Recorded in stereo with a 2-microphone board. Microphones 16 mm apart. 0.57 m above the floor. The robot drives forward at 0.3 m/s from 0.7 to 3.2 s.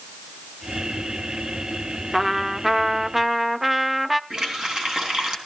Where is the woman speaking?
I don't hear a woman speaking.